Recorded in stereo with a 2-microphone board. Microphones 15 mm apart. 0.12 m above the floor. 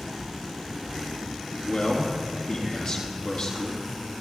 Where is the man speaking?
60° left (ahead or behind), 3.5 m.